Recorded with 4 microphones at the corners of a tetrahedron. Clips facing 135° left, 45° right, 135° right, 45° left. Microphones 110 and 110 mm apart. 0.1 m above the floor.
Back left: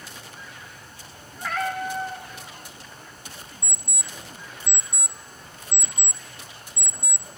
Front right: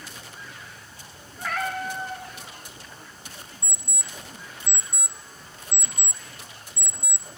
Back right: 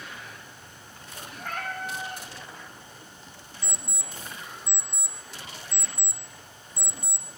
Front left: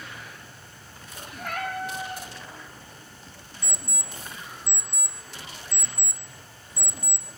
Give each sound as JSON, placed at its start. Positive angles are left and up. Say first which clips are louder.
{"t": 1.4, "sound": "a cat meowing", "louder": "back left 2 dB, front left 3 dB", "azimuth_deg": 45, "distance_m": 1.5}
{"t": 3.6, "sound": "an alarm clock", "louder": "back left 1 dB, front left 1 dB", "azimuth_deg": 75, "distance_m": 0.7}